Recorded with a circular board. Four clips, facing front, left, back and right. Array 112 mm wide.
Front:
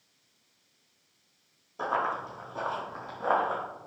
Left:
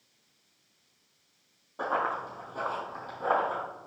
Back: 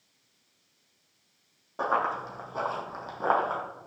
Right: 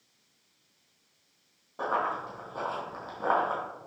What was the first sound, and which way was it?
Running footsteps, straight behind.